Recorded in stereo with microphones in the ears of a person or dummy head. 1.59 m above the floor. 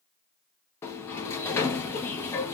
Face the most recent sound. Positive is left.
turn(degrees=15)  # may be behind; listen again after turning